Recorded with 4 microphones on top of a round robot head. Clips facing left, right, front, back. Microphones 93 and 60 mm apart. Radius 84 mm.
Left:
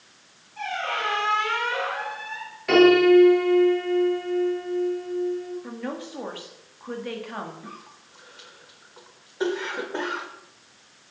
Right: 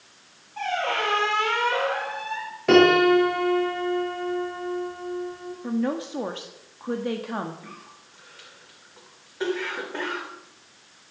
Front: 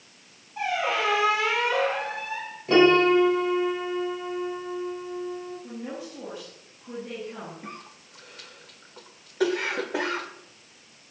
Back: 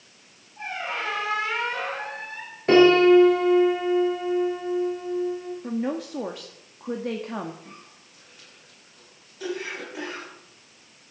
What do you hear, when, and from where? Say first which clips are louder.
0.6 s a squeak: right 3 dB, front 5 dB; 35° right, 2 m
2.7 s a piano: left 1 dB, back 3 dB; 145° right, 7 m
5.6 s a woman speaking: right 7 dB, back 8 dB; 155° right, 1.7 m
7.6 s a cough: left 2 dB, front 5 dB; 20° left, 3 m